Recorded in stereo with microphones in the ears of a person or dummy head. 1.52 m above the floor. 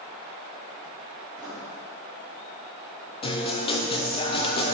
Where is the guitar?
30° left (ahead or behind), 0.6 m.